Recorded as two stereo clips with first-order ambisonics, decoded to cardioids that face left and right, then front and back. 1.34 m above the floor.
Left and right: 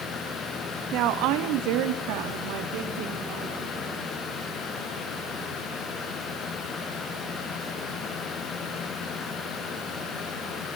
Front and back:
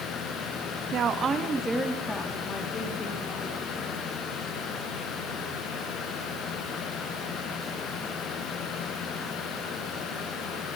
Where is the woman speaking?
125° right, 2.0 m; by 4.0 s 60° right, 4.5 m.